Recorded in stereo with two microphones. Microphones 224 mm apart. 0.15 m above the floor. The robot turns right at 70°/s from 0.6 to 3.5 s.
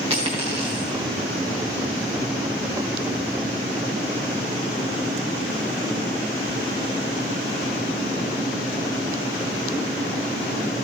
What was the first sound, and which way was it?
A dropped coin, 25° right (ahead or behind).